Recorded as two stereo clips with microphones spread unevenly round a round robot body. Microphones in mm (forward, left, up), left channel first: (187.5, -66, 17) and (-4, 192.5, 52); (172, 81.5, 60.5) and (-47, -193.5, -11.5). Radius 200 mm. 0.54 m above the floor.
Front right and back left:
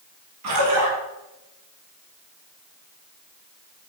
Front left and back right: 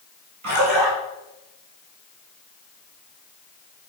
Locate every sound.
0.4 s a splash: straight behind, 3 m